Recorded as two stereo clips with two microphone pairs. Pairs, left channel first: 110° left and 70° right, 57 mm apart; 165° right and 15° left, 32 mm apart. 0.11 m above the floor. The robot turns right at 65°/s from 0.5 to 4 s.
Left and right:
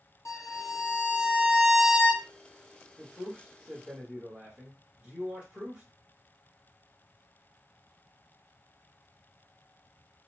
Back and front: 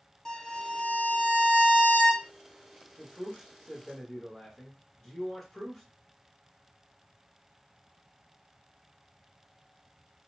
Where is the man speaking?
140° right, 1.3 m; by 5.8 s 75° right, 1.3 m.